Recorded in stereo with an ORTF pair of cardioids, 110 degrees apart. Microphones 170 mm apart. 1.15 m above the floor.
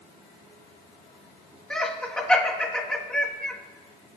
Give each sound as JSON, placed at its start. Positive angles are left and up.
{"t": 1.7, "sound": "laughter", "azimuth_deg": 5, "distance_m": 2.0}